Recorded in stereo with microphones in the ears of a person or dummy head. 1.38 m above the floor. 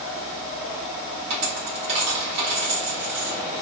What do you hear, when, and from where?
1.3 s a dropped coin: 35° right (ahead or behind), 0.9 m